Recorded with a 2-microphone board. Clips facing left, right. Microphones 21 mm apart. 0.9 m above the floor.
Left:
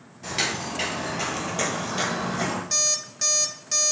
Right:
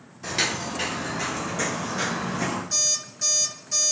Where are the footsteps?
5° right (ahead or behind), 0.9 m; by 2.6 s 55° left (ahead or behind), 1.5 m.